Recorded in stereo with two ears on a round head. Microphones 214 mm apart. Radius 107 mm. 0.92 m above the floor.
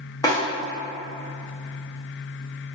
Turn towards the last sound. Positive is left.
turn(degrees=15)  # may be behind; listen again after turning